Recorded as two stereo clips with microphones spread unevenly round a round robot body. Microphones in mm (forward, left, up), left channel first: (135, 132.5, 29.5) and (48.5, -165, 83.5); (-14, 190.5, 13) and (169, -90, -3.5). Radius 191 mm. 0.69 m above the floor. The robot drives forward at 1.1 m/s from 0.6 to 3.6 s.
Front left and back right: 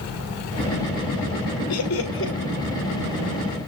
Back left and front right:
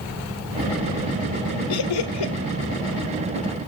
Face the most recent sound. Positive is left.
turn(degrees=150)